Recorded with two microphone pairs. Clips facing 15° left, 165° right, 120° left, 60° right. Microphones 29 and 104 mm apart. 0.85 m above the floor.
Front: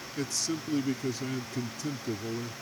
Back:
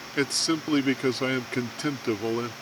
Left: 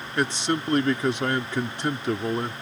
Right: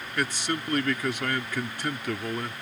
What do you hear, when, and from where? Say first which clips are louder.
0.2 s a man speaking: back 8 dB, left 5 dB; straight behind